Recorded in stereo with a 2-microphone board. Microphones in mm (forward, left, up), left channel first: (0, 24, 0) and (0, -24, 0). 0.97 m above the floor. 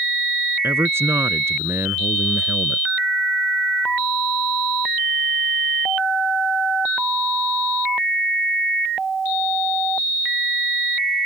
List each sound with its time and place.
0.6 s a man speaking: 60° right (ahead or behind)